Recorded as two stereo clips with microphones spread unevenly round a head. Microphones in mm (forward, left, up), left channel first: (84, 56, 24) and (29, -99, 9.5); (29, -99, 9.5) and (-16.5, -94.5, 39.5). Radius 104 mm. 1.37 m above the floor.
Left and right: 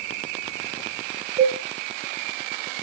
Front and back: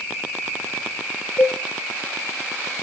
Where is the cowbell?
60° right, 2.5 m.